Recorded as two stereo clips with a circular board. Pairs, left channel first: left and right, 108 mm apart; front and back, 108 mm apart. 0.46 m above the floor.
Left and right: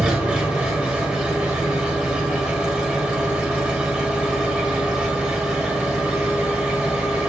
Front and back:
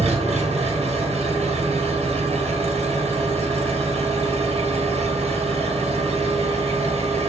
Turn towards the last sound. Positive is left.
turn(degrees=-170)